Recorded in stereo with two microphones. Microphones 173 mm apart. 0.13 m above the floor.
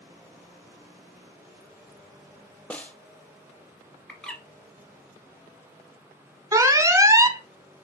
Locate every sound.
2.7 s a snare drum: 10° left (ahead or behind), 0.5 m
4.1 s a bird: 5° left (ahead or behind), 1.2 m
6.5 s an alarm: 20° right (ahead or behind), 0.8 m